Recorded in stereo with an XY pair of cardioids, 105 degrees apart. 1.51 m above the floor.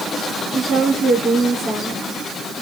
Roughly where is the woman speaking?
Ahead right.